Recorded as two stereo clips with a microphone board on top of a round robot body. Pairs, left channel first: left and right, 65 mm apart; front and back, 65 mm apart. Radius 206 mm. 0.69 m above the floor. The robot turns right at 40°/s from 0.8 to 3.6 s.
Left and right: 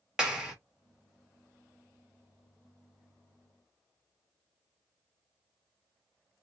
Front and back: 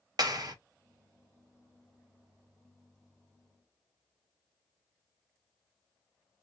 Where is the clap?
170° right, 1.4 m.